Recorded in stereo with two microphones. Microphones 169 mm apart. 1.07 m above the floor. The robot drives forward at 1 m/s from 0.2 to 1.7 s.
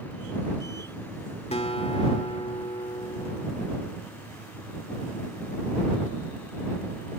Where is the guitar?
40° left (ahead or behind).